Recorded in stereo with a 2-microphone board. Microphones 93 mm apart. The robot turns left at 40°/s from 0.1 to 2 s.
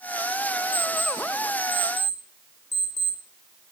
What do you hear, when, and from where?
0.7 s an alarm clock: 20° left (ahead or behind), 2 m; by 3.7 s 60° left (ahead or behind), 2 m